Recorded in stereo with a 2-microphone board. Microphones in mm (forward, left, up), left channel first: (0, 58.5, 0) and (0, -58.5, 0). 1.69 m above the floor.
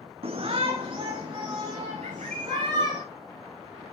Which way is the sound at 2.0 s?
75° right (ahead or behind).